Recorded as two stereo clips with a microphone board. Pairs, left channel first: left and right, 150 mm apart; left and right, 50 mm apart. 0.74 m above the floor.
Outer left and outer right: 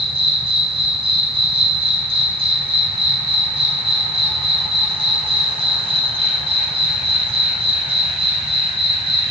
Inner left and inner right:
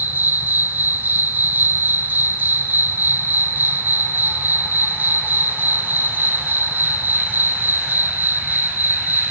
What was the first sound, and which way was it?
An insect, 40° right (ahead or behind).